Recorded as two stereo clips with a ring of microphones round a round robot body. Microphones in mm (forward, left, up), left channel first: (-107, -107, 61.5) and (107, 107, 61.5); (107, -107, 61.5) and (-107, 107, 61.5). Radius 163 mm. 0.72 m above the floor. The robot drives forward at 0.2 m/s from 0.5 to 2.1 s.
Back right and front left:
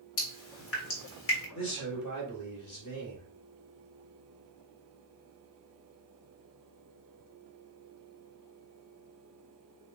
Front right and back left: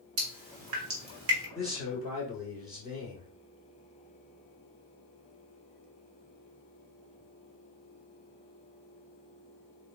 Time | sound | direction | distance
0.2 | dripping | straight behind | 1.2 m
1.6 | a man speaking | 150° right | 1.7 m